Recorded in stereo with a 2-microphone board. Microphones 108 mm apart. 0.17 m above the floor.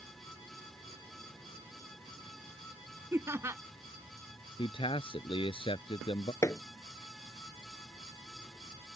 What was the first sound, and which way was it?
Laughter, 25° right (ahead or behind).